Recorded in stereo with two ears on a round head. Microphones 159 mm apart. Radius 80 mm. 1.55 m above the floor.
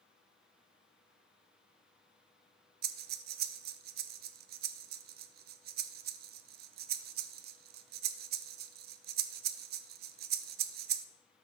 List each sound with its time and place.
2.8 s breathing: 60° right (ahead or behind), 0.6 m